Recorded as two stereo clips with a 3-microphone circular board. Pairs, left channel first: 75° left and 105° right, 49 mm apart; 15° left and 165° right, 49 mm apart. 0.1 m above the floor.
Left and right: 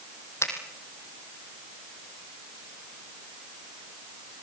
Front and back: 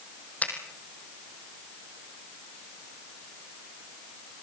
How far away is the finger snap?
About 3.5 m.